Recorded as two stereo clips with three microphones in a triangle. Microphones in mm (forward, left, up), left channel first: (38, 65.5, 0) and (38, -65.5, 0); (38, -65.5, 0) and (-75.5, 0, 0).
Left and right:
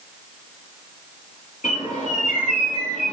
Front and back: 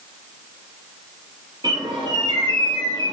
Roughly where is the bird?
Left.